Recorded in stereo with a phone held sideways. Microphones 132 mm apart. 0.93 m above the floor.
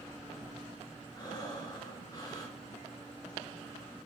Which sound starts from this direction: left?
Breathing, at 1.1 s.